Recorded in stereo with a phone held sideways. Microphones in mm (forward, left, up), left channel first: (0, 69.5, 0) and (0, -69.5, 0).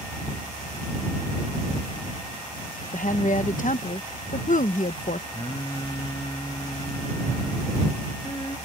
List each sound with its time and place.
2.9 s a woman speaking: 65° left (ahead or behind)
5.3 s singing: 35° left (ahead or behind)